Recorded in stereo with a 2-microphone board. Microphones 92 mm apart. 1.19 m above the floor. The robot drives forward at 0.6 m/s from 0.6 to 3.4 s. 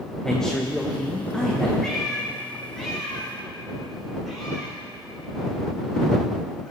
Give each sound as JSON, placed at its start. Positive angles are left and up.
{"t": 0.2, "sound": "a man speaking", "side_deg": 5, "distance_m": 0.8}
{"t": 1.8, "sound": "a cat meowing", "side_deg": 5, "distance_m": 4.0}